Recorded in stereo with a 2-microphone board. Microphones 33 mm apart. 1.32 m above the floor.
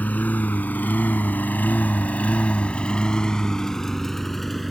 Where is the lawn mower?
60° left (ahead or behind); by 4.7 s 5° left (ahead or behind).